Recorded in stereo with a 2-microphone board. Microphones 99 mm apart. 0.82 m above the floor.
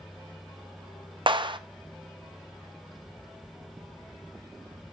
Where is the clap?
55° right (ahead or behind), 0.5 m.